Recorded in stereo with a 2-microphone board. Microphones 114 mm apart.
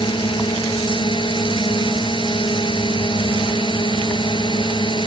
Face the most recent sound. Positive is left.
turn(degrees=45)  # may be behind; listen again after turning